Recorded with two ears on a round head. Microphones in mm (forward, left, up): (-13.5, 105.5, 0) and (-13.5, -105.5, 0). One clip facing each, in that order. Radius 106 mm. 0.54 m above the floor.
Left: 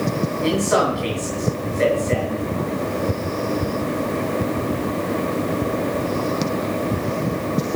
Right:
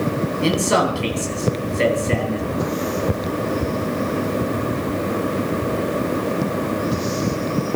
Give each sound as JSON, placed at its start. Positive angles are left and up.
{"t": 0.4, "sound": "a man speaking", "side_deg": -50, "distance_m": 10.0}